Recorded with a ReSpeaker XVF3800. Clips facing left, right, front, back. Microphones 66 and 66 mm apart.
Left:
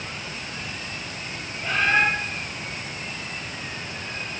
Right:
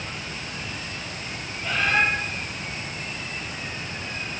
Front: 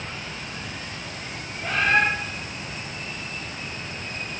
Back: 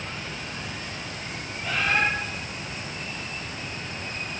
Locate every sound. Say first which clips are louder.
1.6 s a bird: left 2 dB, front 4 dB; 40° left, 2.5 m